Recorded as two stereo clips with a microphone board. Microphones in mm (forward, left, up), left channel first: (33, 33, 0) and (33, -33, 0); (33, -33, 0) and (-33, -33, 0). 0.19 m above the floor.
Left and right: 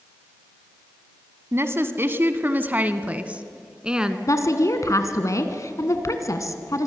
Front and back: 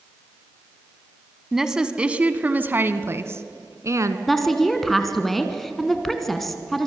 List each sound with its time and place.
1.5 s a woman speaking: 100° right, 1.3 m; by 4.2 s 165° right, 1.7 m
4.3 s a woman speaking: 85° left, 2.5 m